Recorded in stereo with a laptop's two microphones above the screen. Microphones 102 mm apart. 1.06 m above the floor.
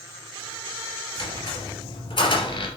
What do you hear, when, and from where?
1.2 s a squeak: 60° left (ahead or behind), 3 m